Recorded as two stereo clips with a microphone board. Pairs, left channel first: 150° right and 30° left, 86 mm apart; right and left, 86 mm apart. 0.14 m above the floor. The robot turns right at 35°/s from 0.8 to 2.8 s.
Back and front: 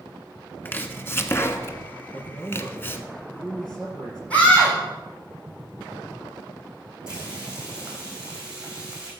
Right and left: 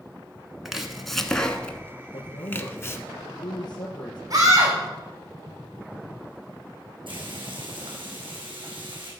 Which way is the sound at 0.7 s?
175° left.